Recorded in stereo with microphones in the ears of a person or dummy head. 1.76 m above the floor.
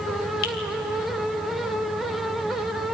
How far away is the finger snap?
About 4 m.